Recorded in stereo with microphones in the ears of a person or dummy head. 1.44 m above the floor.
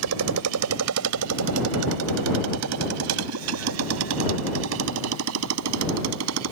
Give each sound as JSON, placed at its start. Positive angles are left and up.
{"t": 0.0, "sound": "a motorcycle", "side_deg": -75}